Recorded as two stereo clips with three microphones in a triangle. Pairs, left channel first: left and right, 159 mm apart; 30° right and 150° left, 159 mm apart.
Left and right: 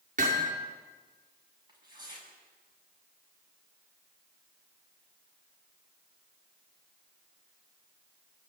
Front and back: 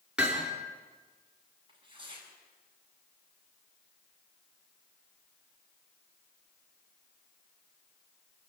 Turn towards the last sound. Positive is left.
turn(degrees=-155)